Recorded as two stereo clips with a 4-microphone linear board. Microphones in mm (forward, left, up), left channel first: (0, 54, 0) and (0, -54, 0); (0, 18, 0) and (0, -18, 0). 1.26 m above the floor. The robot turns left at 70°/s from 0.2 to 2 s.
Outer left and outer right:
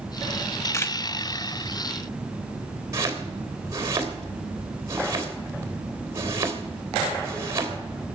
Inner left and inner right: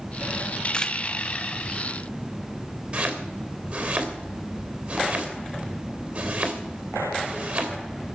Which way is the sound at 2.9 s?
30° right (ahead or behind).